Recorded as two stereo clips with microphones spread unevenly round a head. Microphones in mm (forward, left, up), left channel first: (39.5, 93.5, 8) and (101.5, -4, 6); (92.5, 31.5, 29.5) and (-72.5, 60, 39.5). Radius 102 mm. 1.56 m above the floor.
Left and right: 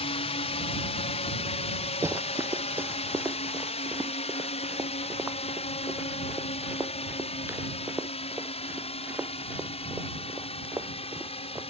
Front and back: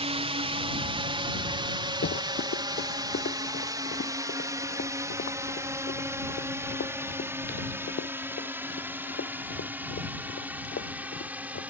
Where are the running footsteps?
10° left; by 11.6 s 15° left.